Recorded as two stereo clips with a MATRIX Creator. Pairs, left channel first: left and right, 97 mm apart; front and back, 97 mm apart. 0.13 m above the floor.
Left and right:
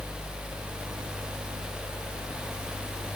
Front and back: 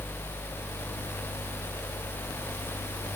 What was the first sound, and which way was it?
Only background noise.